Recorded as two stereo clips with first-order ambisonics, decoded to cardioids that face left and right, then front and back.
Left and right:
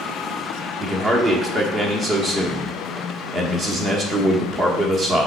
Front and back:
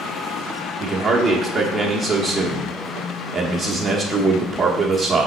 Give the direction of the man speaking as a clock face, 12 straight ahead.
4 o'clock.